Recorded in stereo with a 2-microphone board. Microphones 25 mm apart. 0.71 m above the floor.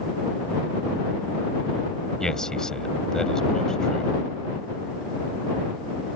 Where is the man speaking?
25° left (ahead or behind).